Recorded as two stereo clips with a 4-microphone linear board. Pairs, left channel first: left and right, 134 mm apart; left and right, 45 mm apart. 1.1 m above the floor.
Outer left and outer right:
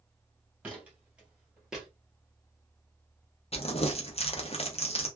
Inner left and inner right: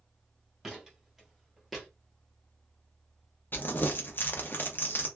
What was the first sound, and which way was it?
Footsteps, 10° right (ahead or behind).